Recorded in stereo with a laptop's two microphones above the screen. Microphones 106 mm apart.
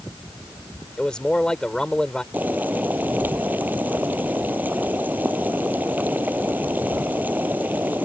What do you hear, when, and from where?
1.0 s a man speaking: 10° left (ahead or behind)
2.3 s boiling: 15° right (ahead or behind)